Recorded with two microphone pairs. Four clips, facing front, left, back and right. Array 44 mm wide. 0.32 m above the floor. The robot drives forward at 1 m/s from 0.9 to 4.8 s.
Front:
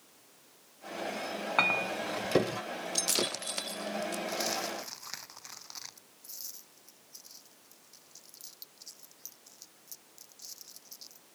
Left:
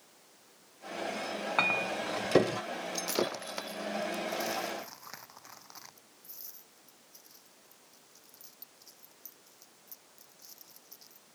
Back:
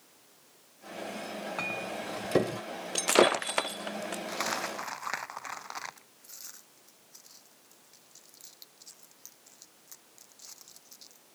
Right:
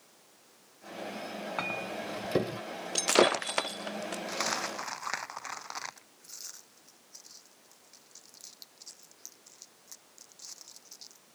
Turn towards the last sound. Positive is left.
turn(degrees=-140)